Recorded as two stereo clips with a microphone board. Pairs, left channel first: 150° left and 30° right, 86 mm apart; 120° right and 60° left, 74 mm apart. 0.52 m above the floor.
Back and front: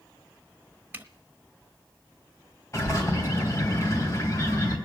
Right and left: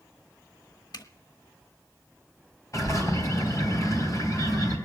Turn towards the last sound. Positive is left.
turn(degrees=-160)